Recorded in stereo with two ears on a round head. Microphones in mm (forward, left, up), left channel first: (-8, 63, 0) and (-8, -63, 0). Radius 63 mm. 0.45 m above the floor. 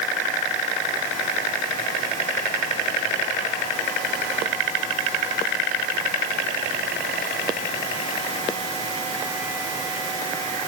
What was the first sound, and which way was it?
Only background noise.